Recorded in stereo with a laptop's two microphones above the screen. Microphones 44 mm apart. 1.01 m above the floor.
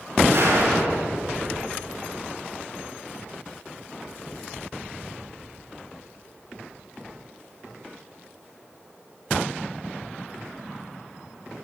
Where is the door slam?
70° right (ahead or behind), 9 m.